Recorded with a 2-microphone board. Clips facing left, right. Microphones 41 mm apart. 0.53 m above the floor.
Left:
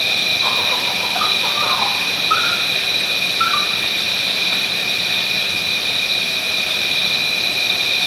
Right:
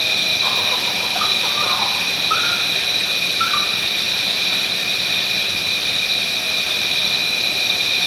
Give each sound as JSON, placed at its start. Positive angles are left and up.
{"t": 0.0, "sound": "an insect", "side_deg": 10, "distance_m": 1.2}